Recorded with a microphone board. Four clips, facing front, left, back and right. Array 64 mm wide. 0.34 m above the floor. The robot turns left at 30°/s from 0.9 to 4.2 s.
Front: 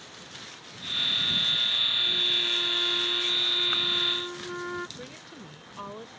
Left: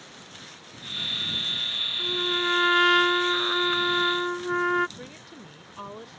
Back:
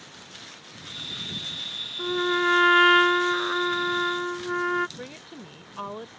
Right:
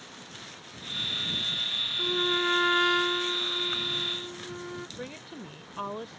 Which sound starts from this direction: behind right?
A woman speaking, at 5.0 s.